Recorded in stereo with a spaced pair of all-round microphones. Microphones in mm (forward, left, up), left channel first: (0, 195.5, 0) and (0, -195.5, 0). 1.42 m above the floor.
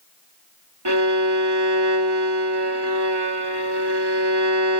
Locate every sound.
0.8 s a violin: 85° right, 2.5 m